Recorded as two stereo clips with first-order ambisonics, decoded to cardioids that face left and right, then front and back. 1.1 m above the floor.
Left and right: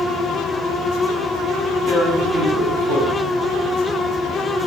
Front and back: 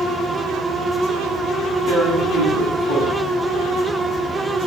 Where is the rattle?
I don't hear a rattle.